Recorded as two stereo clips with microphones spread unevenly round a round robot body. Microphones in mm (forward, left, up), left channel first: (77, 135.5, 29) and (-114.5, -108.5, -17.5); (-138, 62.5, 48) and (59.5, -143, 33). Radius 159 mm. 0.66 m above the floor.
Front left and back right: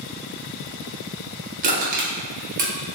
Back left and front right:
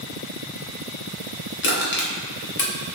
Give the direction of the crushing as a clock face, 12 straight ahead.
6 o'clock.